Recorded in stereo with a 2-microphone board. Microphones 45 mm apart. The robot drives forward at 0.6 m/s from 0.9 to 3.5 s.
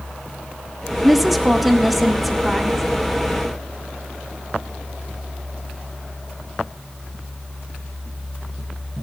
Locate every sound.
1.0 s a woman speaking: 5° right (ahead or behind), 1.0 m; by 2.9 s centre (ahead or behind), 2.0 m